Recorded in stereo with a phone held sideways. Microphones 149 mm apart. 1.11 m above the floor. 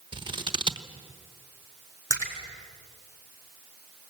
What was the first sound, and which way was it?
Scissors, 35° right (ahead or behind).